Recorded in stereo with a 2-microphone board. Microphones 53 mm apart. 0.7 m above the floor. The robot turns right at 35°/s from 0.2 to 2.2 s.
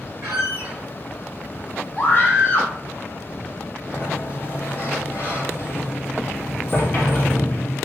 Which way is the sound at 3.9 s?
35° left (ahead or behind).